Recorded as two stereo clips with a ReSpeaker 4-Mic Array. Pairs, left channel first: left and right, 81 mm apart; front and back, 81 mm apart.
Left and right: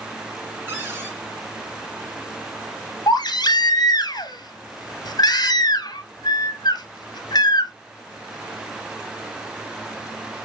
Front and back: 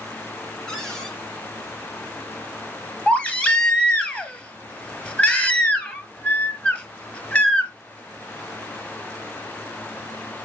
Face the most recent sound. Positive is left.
turn(degrees=75)